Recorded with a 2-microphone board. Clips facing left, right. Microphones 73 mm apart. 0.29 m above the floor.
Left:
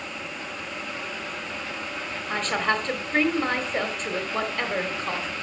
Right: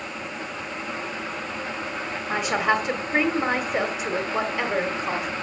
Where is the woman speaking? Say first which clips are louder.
Right 3 dB; 10° right (ahead or behind), 1.6 m.